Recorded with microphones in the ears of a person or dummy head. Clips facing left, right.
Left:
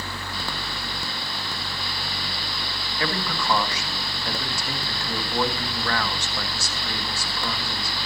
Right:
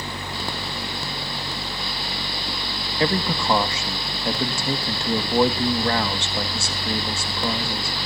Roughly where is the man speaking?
Right.